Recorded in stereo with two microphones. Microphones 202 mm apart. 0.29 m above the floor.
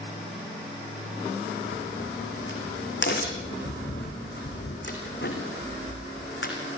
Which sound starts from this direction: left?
A crack, at 1.7 s.